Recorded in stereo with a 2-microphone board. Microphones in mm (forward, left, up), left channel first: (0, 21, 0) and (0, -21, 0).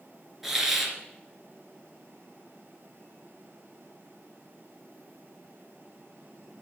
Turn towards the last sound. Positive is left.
turn(degrees=-5)  # may be behind; listen again after turning